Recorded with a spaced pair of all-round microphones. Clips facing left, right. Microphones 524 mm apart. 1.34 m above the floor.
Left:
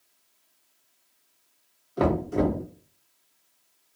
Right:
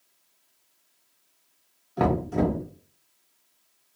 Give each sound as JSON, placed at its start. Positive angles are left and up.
{"t": 2.0, "sound": "knocking", "side_deg": -15, "distance_m": 0.7}